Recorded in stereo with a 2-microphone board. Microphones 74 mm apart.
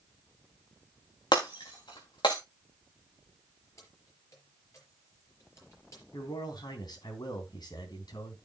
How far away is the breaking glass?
About 4 m.